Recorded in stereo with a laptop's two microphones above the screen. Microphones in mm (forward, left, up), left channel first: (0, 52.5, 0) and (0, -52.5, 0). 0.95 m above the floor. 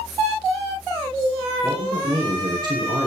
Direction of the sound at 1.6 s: 40° right (ahead or behind).